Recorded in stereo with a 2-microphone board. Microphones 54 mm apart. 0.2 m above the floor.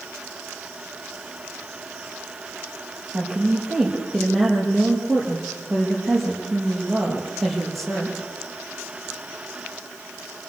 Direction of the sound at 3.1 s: Centre (ahead or behind).